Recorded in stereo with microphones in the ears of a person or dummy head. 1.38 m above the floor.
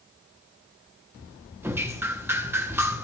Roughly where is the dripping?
Centre.